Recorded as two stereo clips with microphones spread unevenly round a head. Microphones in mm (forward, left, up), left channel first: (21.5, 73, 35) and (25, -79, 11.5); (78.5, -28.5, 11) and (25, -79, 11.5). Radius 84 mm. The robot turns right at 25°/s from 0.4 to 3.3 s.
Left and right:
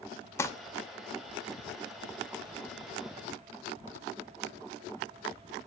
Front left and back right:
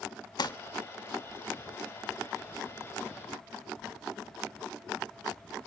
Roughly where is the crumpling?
Ahead.